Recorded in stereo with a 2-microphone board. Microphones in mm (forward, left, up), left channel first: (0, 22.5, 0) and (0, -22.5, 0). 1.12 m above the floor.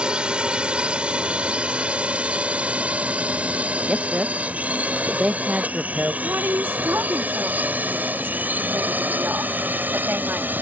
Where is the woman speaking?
55° right (ahead or behind).